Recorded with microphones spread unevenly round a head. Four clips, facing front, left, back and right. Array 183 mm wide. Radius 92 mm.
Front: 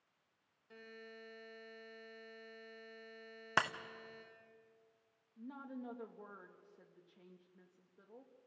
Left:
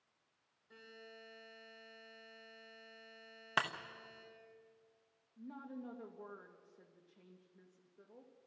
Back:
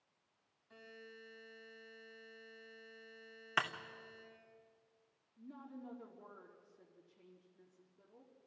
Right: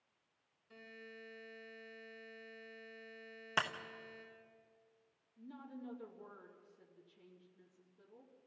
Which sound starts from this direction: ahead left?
A woman speaking, at 5.4 s.